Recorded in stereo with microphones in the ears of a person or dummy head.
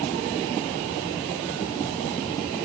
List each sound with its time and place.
Only background noise.